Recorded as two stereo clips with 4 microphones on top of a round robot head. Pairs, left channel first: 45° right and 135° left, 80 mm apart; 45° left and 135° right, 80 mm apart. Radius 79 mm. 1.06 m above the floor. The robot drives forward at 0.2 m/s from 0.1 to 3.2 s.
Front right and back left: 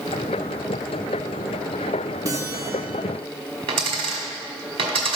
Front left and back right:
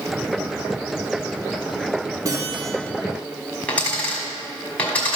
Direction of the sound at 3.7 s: 120° left.